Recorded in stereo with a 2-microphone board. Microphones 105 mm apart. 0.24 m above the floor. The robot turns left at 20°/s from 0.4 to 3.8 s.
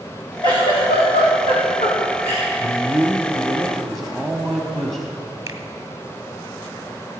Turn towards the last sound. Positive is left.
turn(degrees=-30)  # may be behind; listen again after turning